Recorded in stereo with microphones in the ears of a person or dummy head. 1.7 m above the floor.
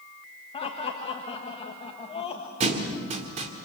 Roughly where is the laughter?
Left.